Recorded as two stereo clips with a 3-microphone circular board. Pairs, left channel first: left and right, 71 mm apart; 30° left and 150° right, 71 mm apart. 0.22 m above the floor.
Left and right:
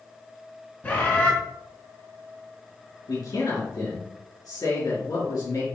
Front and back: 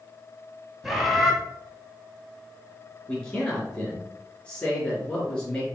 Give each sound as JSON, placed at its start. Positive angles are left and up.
{"t": 0.8, "sound": "a bird", "azimuth_deg": 125, "distance_m": 1.7}
{"t": 3.1, "sound": "a man speaking", "azimuth_deg": 105, "distance_m": 3.5}